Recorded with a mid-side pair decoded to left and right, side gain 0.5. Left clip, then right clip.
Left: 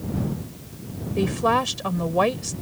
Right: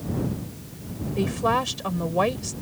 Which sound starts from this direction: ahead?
A woman speaking, at 1.2 s.